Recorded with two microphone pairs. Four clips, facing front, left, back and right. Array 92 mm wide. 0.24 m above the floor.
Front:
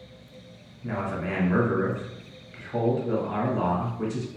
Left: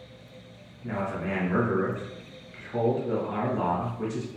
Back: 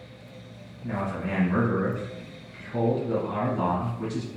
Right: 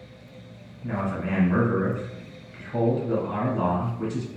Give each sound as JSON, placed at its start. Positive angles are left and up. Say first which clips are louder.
{"t": 0.8, "sound": "a man speaking", "louder": "right 2 dB, even", "azimuth_deg": -15, "distance_m": 1.4}